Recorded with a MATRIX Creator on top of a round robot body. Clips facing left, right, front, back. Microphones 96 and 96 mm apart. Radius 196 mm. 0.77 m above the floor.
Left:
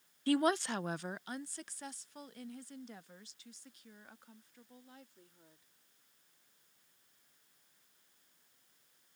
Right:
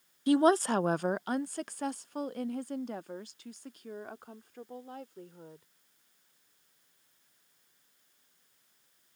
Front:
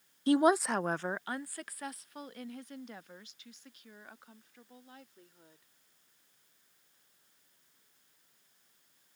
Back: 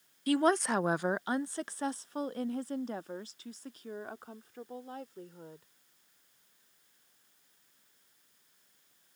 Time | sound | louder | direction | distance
0.3 | a woman speaking | right 7 dB, front 2 dB | 30° right | ?